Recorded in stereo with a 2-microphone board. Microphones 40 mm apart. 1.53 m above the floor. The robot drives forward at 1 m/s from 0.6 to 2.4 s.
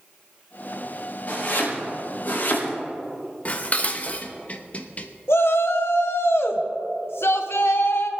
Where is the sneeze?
No sneeze in this recording.